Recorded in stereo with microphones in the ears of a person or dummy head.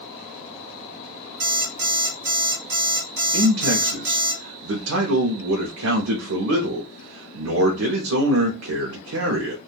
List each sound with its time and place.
1.4 s an alarm clock: 55° right (ahead or behind), 2.0 m
3.3 s a man speaking: 85° right, 0.6 m